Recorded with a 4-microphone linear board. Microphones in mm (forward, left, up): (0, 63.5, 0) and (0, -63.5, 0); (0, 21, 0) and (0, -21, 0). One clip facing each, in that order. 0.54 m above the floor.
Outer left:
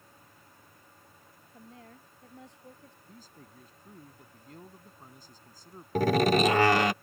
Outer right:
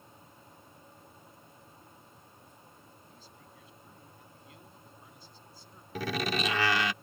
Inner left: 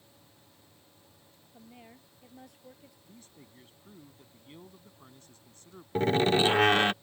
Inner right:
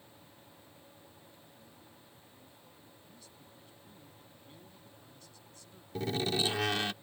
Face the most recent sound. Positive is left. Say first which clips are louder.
# outer left 9 dB, inner left 8 dB
turn(degrees=45)  # may be behind; listen again after turning